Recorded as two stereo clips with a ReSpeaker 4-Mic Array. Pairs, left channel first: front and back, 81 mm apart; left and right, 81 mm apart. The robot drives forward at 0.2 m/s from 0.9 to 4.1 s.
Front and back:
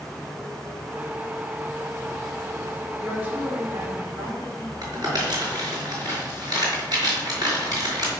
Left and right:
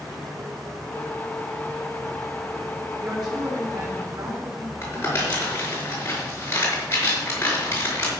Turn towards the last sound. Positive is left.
turn(degrees=150)